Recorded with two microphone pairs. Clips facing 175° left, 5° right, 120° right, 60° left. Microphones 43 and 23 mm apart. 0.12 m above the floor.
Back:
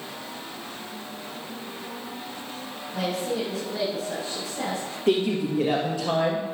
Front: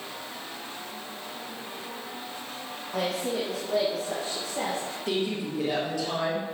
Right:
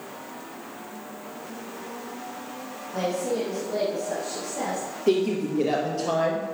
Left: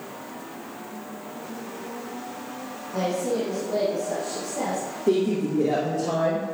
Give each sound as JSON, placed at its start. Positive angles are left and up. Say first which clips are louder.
{"t": 2.9, "sound": "a woman speaking", "louder": "back 1 dB, left 1 dB", "azimuth_deg": -20, "distance_m": 5.5}
{"t": 5.1, "sound": "a woman speaking", "louder": "back 7 dB, even", "azimuth_deg": -120, "distance_m": 3.0}